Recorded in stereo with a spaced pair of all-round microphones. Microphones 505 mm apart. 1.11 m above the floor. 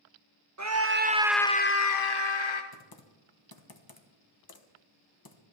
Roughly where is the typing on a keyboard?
Left.